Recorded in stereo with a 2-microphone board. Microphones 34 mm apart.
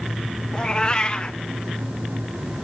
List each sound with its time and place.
0.5 s a cat meowing: 25° left (ahead or behind), 0.7 m